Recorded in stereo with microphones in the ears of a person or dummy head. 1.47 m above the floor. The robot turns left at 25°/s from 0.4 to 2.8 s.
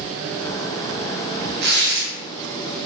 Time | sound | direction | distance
1.6 | tearing paper | 55° right (ahead or behind) | 0.9 m